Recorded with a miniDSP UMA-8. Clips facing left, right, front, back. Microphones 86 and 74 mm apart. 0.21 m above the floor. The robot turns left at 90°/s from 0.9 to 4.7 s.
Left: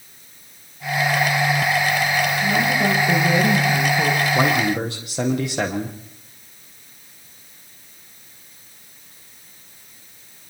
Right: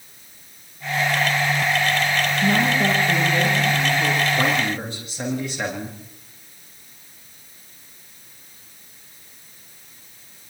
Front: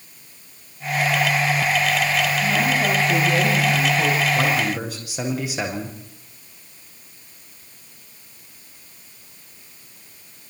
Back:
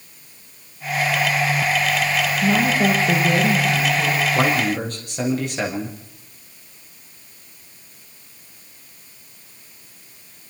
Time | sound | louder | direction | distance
2.4 | a woman speaking | right 3 dB, back 2 dB | 140° right | 9 m
4.3 | a man speaking | left 3 dB, back 2 dB | 115° left | 7 m